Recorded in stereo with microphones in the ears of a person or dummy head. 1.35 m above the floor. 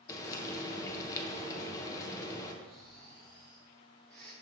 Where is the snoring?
10° left (ahead or behind), 1.0 m.